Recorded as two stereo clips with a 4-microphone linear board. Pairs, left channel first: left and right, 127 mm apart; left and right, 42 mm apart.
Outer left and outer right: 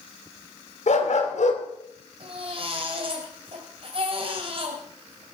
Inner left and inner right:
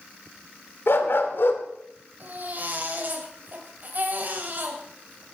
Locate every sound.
0.9 s a dog barking: 65° left (ahead or behind), 2 m
2.2 s a baby crying: 45° right (ahead or behind), 3 m